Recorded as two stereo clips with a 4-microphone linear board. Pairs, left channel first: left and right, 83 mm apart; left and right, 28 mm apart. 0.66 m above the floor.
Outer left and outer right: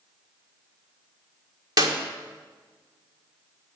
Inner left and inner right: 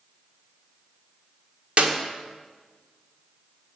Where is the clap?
50° right (ahead or behind), 1.6 m.